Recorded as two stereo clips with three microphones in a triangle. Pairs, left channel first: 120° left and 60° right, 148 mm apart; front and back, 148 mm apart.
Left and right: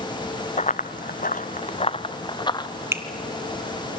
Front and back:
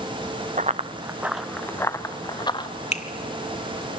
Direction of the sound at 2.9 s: 10° left.